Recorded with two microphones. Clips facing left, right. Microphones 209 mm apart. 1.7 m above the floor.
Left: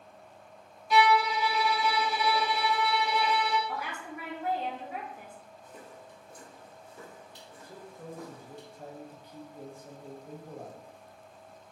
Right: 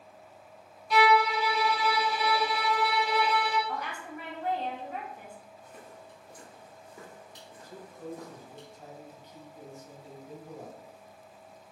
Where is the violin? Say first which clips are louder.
Right 1 dB; centre (ahead or behind), 1.1 m.